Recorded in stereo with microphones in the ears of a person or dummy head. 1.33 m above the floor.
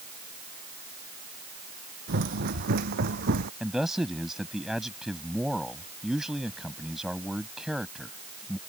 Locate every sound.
2.1 s running footsteps: 45° right (ahead or behind)
3.6 s a man speaking: 5° right (ahead or behind)